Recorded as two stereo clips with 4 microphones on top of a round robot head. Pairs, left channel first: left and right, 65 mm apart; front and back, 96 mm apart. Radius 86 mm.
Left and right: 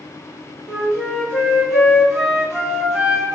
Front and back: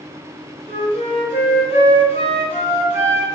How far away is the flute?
About 0.7 m.